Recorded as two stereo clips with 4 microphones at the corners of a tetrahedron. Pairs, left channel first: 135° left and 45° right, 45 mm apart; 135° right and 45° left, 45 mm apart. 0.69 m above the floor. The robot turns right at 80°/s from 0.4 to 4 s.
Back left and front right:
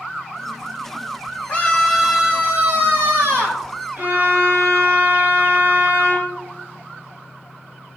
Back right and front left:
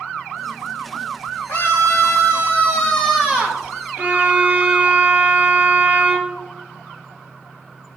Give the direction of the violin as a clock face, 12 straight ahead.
12 o'clock.